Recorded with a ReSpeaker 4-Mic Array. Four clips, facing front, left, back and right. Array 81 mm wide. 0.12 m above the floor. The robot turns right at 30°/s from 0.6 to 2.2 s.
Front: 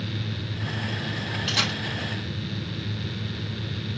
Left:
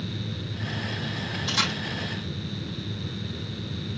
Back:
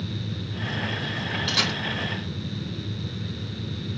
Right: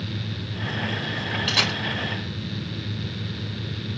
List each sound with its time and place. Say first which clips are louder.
1.5 s a camera shutter: even, front 1 dB; 80° right, 2.5 m; by 1.8 s 70° right, 2.5 m